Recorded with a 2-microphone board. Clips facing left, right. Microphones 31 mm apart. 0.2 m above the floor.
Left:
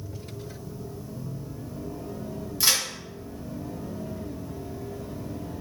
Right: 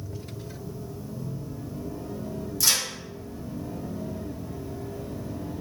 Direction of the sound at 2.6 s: 35° left (ahead or behind).